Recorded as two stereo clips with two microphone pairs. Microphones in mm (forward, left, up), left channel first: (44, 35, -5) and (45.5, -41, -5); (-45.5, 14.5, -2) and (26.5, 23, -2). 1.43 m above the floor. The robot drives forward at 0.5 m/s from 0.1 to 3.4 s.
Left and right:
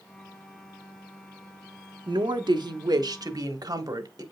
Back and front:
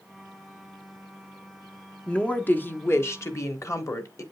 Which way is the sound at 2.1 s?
100° right.